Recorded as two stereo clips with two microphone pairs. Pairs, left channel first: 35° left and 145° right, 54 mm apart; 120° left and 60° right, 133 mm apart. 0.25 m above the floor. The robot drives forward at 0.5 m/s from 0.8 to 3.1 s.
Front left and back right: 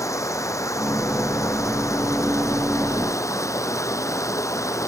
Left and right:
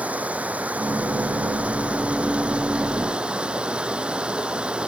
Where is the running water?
20° left; by 4.9 s 25° left.